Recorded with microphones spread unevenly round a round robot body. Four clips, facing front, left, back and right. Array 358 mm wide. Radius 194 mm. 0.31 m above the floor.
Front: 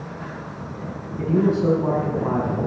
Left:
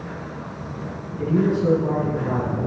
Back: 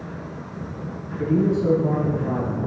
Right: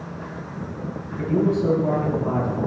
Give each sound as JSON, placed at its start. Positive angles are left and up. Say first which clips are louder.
{"t": 1.2, "sound": "a man speaking", "louder": "even, front 1 dB", "azimuth_deg": -5, "distance_m": 3.5}